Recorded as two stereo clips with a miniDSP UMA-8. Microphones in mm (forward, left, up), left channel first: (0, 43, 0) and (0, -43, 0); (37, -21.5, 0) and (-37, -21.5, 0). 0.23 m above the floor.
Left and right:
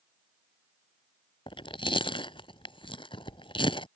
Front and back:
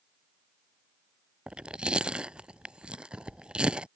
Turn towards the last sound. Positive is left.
turn(degrees=105)